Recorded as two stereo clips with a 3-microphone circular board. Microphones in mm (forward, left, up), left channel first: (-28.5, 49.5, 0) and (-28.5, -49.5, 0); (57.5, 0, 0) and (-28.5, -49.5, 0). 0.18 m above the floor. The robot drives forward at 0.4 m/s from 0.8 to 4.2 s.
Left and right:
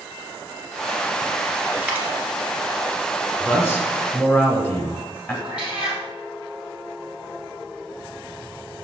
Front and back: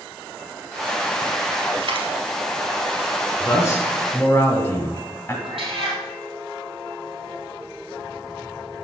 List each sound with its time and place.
1.8 s a dropped coin: 165° right, 1.4 m
3.4 s a man speaking: 40° left, 1.6 m; by 5.3 s 60° left, 1.5 m
5.4 s a cat meowing: 170° right, 2.5 m